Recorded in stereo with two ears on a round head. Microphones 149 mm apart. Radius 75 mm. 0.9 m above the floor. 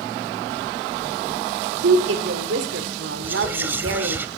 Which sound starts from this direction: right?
A woman speaking, at 1.8 s.